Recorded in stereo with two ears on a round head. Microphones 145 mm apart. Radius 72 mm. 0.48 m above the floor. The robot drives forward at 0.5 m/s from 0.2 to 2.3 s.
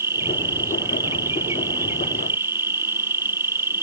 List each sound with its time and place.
0.0 s an insect: 15° right (ahead or behind)